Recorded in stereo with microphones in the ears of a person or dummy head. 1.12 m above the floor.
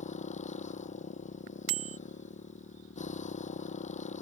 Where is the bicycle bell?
80° right.